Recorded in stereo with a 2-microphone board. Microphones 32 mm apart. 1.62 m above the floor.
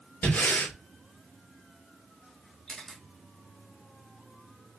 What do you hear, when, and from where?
0.2 s breathing: 55° left (ahead or behind), 2.0 m
2.7 s a camera shutter: 15° left (ahead or behind), 1.9 m